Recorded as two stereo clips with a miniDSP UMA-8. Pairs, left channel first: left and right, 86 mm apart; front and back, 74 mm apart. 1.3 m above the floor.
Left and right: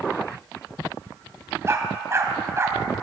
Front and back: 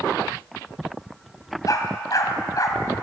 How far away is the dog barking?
About 2.5 m.